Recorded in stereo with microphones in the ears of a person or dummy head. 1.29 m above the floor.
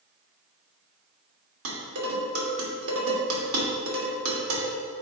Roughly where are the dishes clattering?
Right.